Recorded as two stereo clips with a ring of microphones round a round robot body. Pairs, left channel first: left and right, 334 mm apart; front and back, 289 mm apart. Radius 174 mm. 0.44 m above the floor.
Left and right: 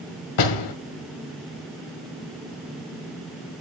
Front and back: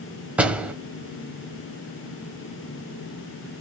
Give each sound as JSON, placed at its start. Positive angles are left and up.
{"t": 0.4, "sound": "a door slam", "azimuth_deg": 95, "distance_m": 2.0}